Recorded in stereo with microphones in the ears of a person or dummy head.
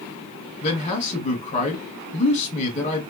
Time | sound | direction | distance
0.6 | a man speaking | 30° left (ahead or behind) | 1.1 m